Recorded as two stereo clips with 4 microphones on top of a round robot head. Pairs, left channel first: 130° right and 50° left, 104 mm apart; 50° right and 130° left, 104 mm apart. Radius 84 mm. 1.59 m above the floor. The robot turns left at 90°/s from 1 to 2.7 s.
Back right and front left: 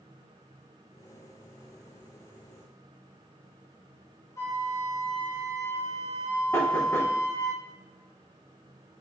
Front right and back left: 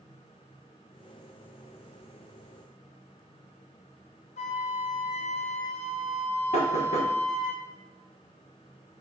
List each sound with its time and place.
4.4 s a flute: 65° right, 1.0 m
6.5 s knocking: 65° right, 1.6 m